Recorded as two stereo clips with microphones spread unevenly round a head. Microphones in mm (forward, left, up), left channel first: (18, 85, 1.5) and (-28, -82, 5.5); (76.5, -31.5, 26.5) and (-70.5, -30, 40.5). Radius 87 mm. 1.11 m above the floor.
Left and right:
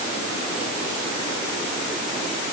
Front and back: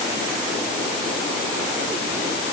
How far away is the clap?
No clap in this recording.